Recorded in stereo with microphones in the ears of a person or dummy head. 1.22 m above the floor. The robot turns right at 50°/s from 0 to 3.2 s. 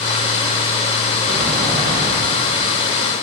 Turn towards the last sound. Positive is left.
turn(degrees=170)